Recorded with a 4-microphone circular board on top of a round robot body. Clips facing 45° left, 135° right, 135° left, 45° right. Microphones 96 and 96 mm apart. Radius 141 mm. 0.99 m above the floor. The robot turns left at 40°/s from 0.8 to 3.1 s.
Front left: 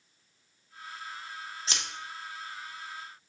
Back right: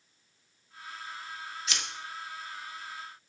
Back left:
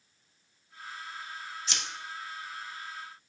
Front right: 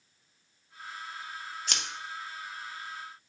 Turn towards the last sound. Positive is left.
turn(degrees=-65)